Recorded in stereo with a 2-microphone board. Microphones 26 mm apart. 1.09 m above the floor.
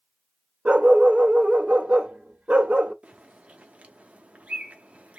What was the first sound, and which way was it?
A dog barking, 55° right (ahead or behind).